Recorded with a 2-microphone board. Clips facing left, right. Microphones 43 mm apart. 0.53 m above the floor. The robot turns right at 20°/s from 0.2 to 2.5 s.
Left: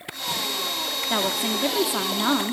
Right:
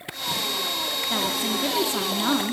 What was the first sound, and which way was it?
A woman speaking, 25° left (ahead or behind).